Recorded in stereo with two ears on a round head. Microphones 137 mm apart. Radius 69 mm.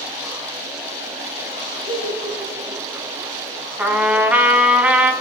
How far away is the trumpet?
About 0.9 m.